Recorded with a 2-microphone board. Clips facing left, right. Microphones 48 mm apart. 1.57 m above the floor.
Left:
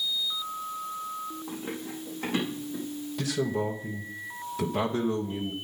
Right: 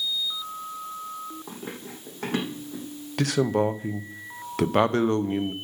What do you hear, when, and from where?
1.5 s running footsteps: 55° right (ahead or behind), 4.5 m; by 2.9 s 65° right (ahead or behind), 5 m
3.2 s a man speaking: 70° right (ahead or behind), 0.8 m